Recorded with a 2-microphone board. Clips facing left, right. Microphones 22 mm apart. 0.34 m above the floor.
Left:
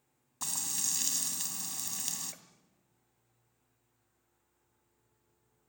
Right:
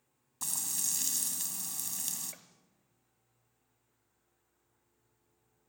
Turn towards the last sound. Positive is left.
turn(degrees=-10)  # may be behind; listen again after turning